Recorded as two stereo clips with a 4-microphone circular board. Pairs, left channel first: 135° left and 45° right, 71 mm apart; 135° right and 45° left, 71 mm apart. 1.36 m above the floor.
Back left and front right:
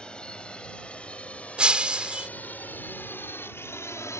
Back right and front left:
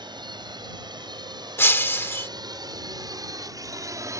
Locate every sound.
0.0 s a drone: 55° left; by 4.2 s 90° left
1.6 s breaking glass: 110° right